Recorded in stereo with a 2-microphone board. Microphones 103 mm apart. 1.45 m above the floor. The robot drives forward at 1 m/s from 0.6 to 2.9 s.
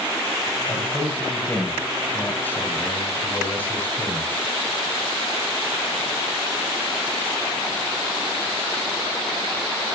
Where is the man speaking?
15° left (ahead or behind), 7.5 m; by 4.3 s 20° left (ahead or behind), 5.5 m.